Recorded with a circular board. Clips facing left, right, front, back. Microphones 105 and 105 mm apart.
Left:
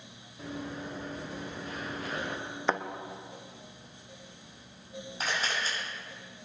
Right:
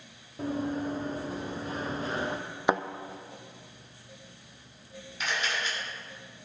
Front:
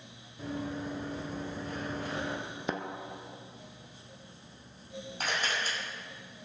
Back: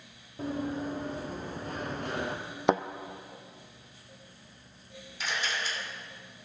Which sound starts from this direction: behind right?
Running footsteps, at 0.4 s.